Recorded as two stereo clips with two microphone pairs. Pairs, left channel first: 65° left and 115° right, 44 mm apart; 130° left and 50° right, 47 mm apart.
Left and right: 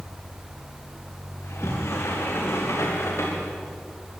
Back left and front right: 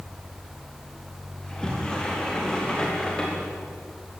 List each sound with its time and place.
1.4 s a sliding door: 55° left, 6.5 m